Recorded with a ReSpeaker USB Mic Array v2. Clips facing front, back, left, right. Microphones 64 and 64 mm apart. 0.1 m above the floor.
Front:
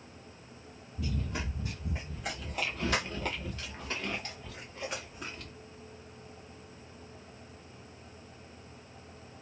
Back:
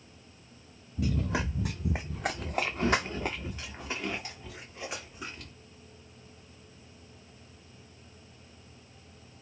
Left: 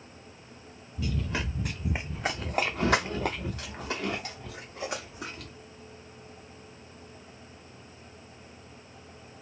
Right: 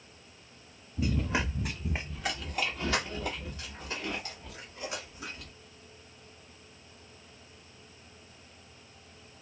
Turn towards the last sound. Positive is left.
turn(degrees=95)